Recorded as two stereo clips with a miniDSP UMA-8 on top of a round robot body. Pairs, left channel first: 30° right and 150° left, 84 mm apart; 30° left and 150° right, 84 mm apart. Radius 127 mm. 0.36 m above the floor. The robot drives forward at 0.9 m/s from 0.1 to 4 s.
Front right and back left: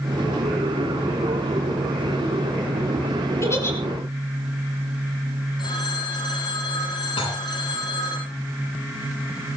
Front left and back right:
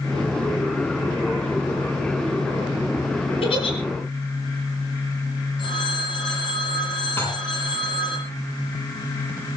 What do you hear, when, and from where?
3.4 s a giggle: 30° left, 5.5 m
5.6 s a phone ringing: 5° left, 8.5 m
7.2 s dishes clattering: 35° right, 9.5 m